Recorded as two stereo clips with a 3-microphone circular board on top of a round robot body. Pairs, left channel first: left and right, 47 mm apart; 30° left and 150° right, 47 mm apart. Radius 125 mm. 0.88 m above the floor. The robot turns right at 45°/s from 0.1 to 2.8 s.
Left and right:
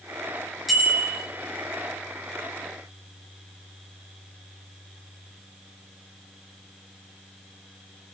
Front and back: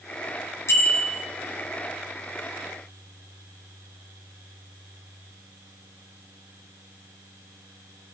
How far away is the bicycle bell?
About 10 m.